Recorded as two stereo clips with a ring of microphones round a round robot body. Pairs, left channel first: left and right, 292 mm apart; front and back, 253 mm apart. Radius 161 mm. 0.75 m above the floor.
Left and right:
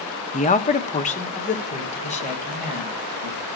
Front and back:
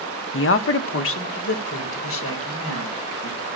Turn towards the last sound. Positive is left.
turn(degrees=25)